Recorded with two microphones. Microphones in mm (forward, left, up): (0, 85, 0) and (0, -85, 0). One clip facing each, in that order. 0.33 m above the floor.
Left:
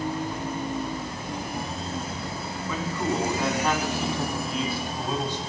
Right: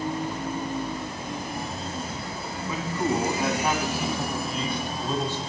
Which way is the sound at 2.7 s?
20° right (ahead or behind).